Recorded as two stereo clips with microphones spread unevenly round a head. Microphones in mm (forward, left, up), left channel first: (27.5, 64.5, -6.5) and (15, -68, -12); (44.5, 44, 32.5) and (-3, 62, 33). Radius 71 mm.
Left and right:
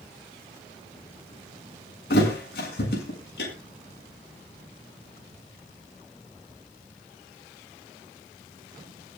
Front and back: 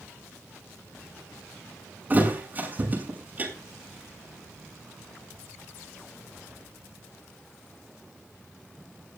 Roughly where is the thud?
Left.